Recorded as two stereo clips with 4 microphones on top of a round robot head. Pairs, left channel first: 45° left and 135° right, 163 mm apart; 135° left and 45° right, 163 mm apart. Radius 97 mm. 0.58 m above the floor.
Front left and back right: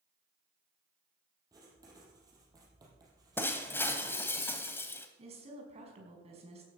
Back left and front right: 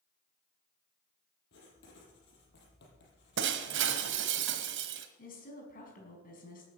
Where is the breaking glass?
35° right, 1.3 m.